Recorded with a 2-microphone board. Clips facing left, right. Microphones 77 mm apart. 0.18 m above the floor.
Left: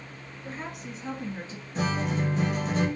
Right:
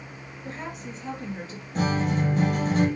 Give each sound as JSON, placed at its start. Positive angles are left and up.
{"t": 0.4, "sound": "a woman speaking", "side_deg": 5, "distance_m": 1.7}
{"t": 1.8, "sound": "a guitar", "side_deg": -40, "distance_m": 1.3}